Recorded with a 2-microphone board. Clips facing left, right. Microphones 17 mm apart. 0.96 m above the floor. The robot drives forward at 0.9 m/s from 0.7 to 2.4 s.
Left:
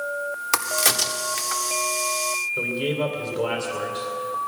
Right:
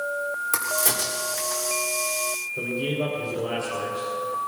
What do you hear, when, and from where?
0.5 s a crack: 60° left (ahead or behind), 1.1 m; by 1.6 s 65° left (ahead or behind), 1.0 m
2.6 s a man speaking: 75° left (ahead or behind), 2.5 m